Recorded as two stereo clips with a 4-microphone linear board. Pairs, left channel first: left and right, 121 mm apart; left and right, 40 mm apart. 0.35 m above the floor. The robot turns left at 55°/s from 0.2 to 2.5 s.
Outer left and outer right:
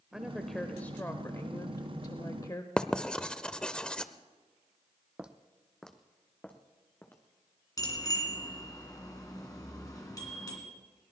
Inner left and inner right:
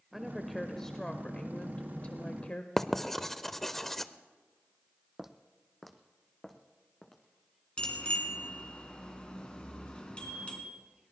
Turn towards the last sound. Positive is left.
turn(degrees=30)  # may be behind; listen again after turning